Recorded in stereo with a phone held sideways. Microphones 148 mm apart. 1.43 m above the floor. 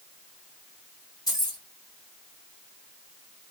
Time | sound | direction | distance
1.3 | keys jangling | 25° left (ahead or behind) | 1.5 m